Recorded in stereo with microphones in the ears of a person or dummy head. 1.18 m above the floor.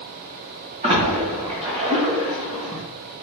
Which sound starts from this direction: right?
A splash, at 0.8 s.